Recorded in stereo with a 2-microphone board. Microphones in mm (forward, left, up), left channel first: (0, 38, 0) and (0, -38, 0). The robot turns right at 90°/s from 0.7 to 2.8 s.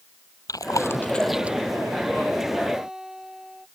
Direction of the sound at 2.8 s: 10° right (ahead or behind).